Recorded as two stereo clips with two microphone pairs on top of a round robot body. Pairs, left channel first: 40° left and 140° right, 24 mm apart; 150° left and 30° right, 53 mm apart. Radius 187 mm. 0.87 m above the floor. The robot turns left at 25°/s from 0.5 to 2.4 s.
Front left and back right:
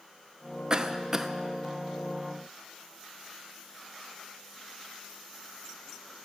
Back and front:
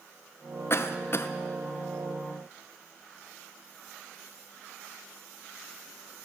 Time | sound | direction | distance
0.7 | a cough | 155° left | 0.8 m